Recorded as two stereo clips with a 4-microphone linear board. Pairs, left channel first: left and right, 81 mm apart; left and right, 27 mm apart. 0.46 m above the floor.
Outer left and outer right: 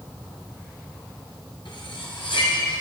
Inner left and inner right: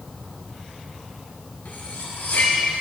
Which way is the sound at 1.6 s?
80° left.